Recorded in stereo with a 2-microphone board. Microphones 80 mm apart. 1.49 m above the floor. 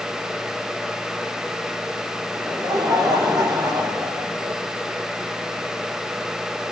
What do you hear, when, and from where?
2.4 s laughter: 60° right (ahead or behind), 4.5 m